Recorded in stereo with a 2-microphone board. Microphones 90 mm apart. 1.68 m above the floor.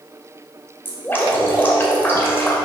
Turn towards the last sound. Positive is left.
turn(degrees=20)  # may be behind; listen again after turning